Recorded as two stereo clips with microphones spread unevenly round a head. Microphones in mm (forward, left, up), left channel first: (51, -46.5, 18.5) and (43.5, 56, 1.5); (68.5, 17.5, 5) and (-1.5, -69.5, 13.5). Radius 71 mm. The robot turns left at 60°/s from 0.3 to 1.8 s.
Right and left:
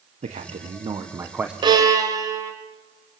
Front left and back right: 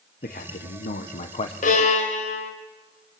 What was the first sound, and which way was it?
A man speaking, 85° left.